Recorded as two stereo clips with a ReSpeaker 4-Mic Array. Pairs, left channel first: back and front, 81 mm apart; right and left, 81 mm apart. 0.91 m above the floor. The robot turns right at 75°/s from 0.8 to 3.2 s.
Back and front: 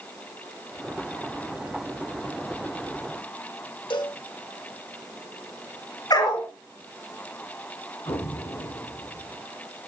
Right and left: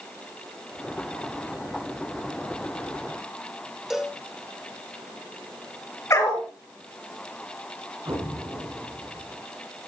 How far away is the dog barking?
About 6 m.